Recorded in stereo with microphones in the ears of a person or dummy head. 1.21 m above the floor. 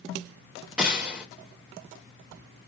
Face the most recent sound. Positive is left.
turn(degrees=-5)  # may be behind; listen again after turning